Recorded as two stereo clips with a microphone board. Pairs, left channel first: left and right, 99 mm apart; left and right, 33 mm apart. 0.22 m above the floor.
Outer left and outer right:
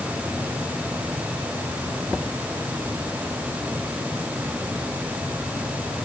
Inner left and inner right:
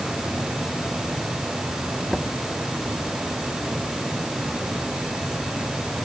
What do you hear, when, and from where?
Only background noise.